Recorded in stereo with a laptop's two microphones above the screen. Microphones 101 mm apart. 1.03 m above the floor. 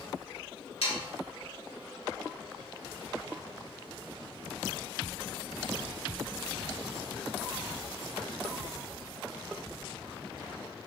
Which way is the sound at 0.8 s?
75° left (ahead or behind).